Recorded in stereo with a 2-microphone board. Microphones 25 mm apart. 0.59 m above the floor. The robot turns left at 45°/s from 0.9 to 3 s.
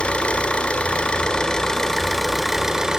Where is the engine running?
65° left, 1.8 m; by 3.0 s 30° right, 1.8 m.